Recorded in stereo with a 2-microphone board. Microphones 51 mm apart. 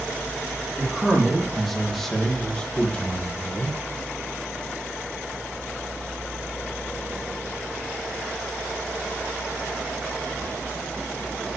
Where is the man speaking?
5° right (ahead or behind), 3.5 m; by 3.8 s 35° left (ahead or behind), 2 m.